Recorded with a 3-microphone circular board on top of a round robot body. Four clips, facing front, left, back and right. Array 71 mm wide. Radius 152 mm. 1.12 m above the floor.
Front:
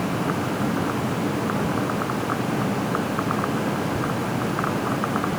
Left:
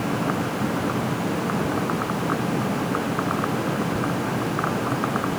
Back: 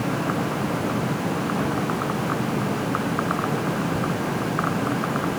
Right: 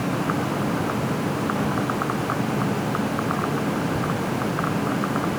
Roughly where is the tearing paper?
I don't hear tearing paper.